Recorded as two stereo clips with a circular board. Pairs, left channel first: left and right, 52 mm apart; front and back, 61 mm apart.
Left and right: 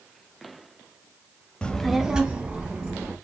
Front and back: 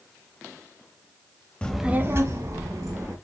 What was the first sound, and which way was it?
A child speaking, 45° left.